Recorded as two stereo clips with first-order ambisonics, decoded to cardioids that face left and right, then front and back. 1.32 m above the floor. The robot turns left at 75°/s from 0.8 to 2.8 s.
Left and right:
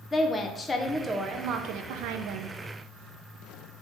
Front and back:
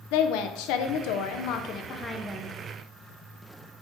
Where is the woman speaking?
15° left, 0.6 m; by 2.5 s 115° right, 0.6 m.